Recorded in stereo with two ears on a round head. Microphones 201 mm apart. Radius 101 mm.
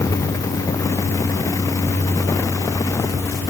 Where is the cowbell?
No cowbell in this recording.